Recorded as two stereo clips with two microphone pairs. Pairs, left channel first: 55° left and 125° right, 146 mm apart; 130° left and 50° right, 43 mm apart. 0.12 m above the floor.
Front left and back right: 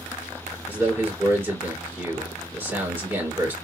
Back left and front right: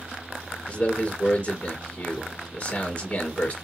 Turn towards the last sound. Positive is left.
turn(degrees=165)